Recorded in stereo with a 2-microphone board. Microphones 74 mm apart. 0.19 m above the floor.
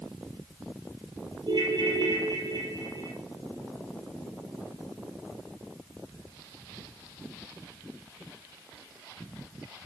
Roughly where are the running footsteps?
I don't hear running footsteps.